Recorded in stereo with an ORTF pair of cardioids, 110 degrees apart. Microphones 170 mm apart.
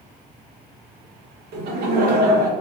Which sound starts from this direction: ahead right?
Laughter, at 1.5 s.